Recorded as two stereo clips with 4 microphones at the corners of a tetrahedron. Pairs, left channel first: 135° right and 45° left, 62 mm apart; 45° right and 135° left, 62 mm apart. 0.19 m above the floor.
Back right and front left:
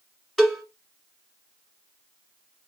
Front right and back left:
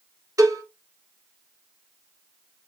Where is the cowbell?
135° left, 1.5 m.